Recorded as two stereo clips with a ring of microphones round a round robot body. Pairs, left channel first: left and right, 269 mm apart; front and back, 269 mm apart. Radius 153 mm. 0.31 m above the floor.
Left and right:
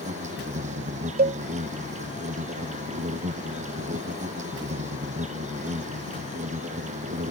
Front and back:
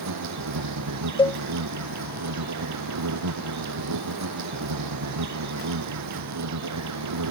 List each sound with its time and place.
0.0 s an insect: 160° right
1.2 s a cowbell: 65° right